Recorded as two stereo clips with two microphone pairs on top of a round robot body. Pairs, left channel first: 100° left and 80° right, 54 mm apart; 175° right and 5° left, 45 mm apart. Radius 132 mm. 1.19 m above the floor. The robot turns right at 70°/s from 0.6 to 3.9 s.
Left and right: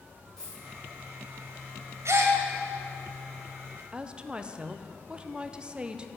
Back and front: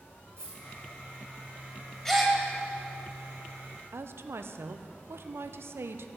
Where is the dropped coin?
25° left, 3.5 m.